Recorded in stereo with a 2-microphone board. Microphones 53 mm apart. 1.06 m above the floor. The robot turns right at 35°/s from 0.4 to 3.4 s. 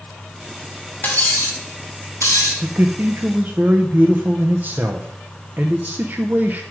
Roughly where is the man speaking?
Right.